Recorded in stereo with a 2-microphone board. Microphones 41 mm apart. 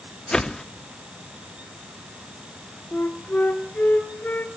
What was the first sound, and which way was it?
A whoosh, 20° left (ahead or behind).